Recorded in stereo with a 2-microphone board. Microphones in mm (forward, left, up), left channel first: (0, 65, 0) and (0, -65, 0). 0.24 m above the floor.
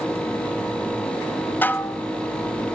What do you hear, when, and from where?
1.6 s dishes clattering: 15° left (ahead or behind), 0.8 m